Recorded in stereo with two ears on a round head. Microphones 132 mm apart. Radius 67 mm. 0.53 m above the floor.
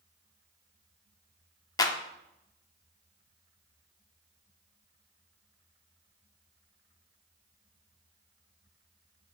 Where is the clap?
25° left (ahead or behind), 0.5 m.